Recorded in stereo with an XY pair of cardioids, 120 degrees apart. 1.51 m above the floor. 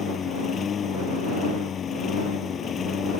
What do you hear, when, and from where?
0.0 s a lawn mower: 45° left